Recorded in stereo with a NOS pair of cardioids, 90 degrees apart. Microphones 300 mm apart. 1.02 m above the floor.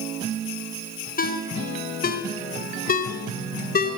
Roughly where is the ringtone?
Ahead left.